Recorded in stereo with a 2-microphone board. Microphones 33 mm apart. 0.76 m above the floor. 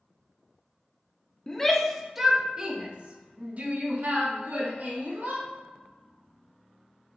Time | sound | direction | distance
1.5 | a shout | 15° left (ahead or behind) | 0.9 m